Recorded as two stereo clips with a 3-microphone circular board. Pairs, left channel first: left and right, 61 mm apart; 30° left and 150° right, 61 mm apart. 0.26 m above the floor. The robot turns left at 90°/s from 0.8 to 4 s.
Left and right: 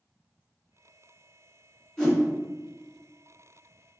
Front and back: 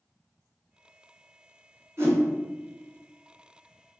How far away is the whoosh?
About 1.2 m.